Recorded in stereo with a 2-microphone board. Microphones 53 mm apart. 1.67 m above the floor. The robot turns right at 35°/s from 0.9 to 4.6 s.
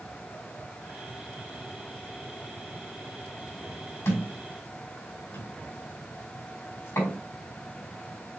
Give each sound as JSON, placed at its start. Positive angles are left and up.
{"t": 4.0, "sound": "a thud", "side_deg": 65, "distance_m": 4.0}